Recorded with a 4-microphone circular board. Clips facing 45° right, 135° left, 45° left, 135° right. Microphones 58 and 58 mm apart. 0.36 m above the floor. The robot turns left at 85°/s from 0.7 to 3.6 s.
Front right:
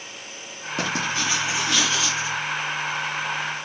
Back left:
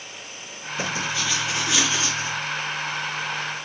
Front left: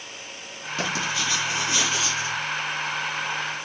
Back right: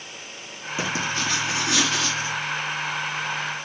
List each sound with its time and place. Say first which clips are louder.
0.8 s writing: front right 2 dB, back right 1 dB; 55° right, 3.5 m; by 2.4 s 165° left, 3.5 m